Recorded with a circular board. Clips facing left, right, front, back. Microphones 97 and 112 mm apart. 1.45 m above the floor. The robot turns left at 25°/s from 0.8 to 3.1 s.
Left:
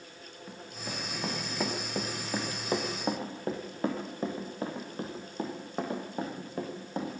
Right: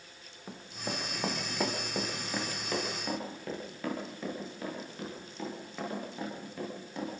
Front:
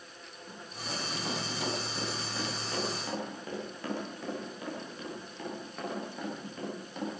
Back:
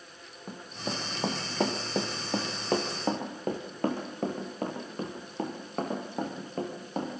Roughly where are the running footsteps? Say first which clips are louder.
Right 3 dB, back 5 dB; behind right.